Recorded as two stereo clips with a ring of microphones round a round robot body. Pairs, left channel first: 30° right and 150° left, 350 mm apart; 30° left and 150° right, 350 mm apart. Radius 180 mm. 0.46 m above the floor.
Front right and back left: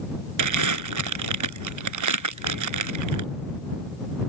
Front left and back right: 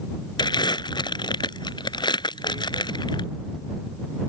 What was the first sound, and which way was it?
Crumpling, 110° left.